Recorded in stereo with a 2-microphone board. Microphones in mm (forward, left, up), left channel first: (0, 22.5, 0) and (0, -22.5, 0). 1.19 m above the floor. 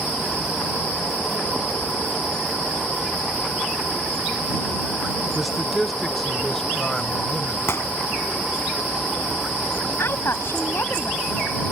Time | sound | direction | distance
5.3 | a man speaking | 5° right (ahead or behind) | ?
7.7 | a gunshot | 70° left (ahead or behind) | ?
10.0 | a woman speaking | 65° left (ahead or behind) | ?